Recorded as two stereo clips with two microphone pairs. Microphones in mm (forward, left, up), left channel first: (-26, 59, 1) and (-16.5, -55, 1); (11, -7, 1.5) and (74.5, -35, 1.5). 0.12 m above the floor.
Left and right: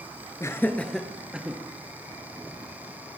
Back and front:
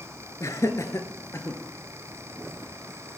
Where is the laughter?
145° left, 1.6 m; by 1.6 s 160° right, 2 m.